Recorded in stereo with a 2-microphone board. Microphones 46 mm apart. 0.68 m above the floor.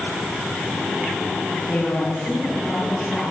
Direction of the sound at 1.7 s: 5° left (ahead or behind).